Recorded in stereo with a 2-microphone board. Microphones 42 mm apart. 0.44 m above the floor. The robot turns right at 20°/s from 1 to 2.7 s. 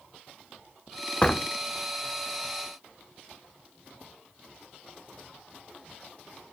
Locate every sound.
1.2 s a door slam: 25° left (ahead or behind), 0.7 m